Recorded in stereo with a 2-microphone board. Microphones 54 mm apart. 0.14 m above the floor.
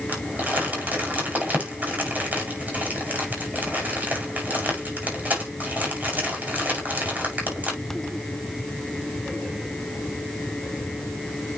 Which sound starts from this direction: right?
Crumpling, at 0.1 s.